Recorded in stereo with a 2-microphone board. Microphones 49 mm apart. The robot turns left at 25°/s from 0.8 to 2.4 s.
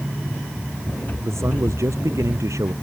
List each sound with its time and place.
1.2 s a man speaking: 65° right (ahead or behind); by 2.7 s 80° right